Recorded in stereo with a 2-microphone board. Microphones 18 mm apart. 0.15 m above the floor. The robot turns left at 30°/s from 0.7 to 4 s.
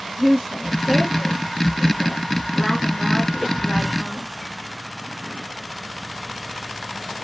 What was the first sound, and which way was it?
A woman speaking, 140° right.